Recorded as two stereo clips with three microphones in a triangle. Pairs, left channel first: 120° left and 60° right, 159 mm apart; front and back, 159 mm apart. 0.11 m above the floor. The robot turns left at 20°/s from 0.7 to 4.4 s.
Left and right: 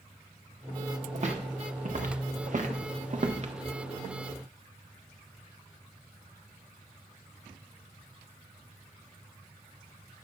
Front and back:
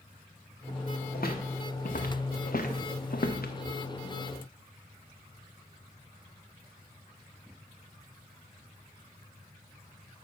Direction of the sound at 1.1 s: 20° right.